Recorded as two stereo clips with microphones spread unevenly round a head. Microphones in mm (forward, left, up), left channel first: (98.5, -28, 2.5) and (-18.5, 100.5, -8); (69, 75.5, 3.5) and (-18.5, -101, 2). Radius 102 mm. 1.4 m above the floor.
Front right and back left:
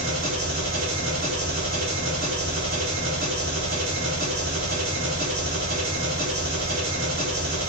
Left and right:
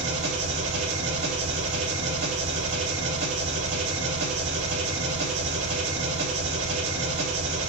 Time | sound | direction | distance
0.0 | an engine running | 175° right | 3 m